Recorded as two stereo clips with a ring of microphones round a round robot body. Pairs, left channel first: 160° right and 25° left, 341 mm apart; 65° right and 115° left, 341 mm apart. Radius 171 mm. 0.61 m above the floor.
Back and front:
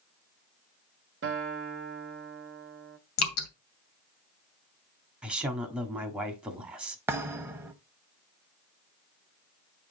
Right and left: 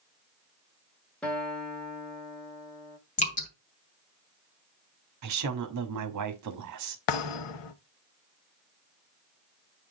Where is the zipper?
No zipper in this recording.